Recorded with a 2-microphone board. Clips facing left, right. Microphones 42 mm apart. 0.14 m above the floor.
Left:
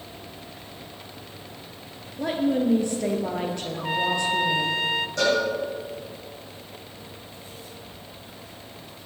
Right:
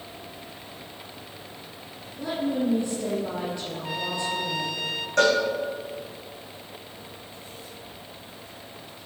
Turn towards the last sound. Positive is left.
turn(degrees=-55)  # may be behind; listen again after turning